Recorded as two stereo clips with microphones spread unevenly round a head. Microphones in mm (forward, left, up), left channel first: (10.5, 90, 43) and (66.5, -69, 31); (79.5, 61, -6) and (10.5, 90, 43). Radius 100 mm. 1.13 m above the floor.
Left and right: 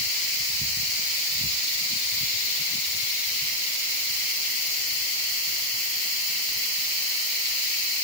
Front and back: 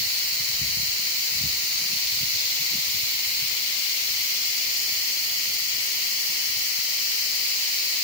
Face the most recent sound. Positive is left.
No sound to turn to.